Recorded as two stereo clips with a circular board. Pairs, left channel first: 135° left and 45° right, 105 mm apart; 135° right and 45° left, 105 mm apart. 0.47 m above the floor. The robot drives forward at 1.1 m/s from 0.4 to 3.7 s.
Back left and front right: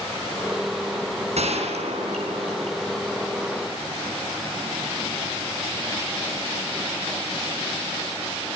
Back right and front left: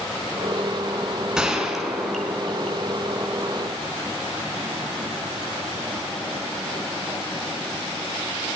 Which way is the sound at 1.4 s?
40° right.